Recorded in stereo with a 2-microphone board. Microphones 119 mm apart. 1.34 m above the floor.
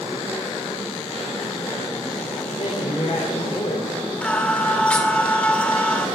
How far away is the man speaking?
About 3.5 m.